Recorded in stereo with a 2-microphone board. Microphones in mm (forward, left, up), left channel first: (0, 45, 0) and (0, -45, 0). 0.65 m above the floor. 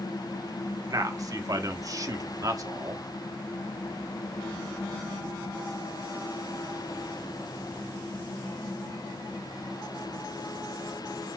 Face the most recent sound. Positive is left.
turn(degrees=-45)  # may be behind; listen again after turning